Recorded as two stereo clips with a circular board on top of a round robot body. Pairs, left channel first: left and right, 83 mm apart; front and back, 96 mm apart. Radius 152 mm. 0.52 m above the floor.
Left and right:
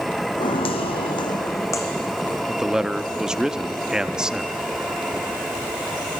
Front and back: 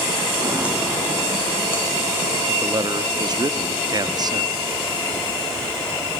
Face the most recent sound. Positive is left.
turn(degrees=-170)